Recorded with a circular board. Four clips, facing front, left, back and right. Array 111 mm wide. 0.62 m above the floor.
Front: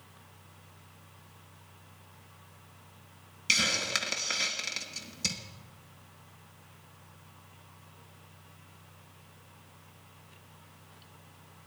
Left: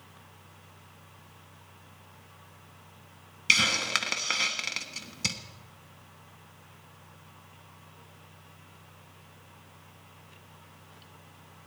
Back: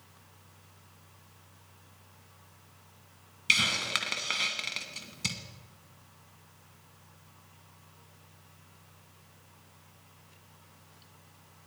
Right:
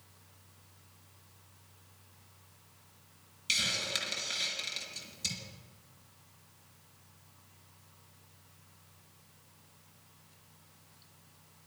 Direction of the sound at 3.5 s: 105° left.